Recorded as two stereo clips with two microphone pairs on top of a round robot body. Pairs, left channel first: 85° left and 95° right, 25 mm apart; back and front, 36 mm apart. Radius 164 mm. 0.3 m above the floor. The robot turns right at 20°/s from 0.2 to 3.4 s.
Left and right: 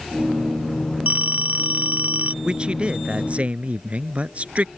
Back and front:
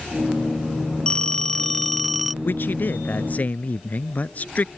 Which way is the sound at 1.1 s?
115° right.